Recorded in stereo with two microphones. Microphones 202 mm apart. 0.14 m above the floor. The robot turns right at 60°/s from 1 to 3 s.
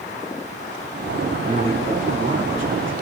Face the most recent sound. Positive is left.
turn(degrees=-70)